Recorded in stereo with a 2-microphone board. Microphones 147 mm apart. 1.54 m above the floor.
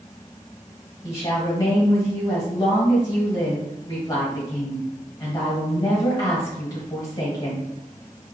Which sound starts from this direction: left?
A woman speaking, at 1.0 s.